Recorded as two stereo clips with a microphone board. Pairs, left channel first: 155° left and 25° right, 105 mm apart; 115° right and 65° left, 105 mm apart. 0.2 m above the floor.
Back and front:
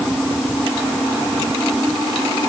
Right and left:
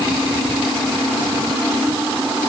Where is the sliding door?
No sliding door in this recording.